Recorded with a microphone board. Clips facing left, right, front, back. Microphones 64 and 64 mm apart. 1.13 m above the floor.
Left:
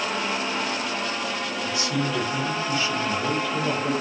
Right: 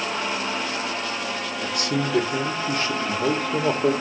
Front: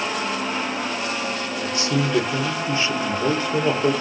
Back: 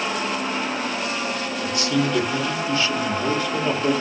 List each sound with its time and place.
1.6 s a man speaking: 60° right, 1.1 m